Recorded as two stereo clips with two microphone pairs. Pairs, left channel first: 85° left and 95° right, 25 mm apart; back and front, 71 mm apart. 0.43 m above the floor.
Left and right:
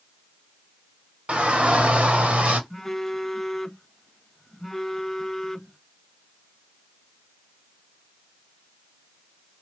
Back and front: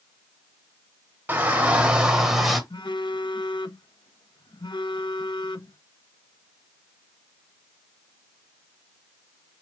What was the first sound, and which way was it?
A shout, 60° right.